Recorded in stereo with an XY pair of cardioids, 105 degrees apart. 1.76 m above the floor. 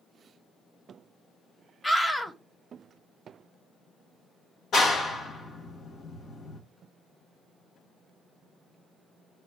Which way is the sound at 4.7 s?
60° left.